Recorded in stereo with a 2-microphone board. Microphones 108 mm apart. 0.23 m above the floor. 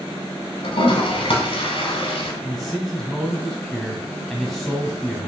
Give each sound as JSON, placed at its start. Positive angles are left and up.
{"t": 0.6, "sound": "a toilet flushing", "side_deg": 55, "distance_m": 0.9}
{"t": 2.4, "sound": "a man speaking", "side_deg": 0, "distance_m": 1.5}